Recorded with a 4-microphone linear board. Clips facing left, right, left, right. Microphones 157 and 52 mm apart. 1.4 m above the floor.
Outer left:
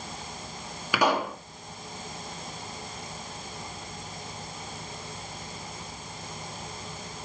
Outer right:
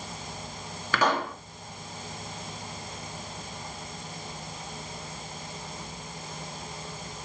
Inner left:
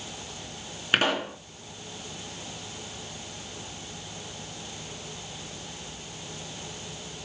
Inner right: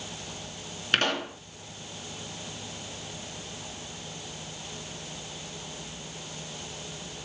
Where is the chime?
No chime in this recording.